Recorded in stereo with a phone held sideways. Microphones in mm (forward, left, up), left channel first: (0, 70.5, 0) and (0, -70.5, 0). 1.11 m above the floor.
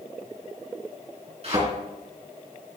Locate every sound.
1.4 s a thud: 50° right (ahead or behind), 3.5 m